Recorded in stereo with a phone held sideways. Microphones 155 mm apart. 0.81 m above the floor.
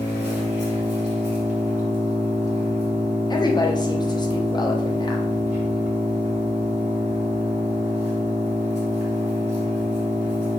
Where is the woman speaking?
30° left (ahead or behind), 0.5 m.